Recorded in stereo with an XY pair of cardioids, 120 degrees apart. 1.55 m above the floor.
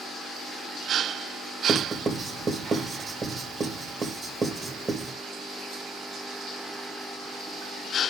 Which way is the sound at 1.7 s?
30° right.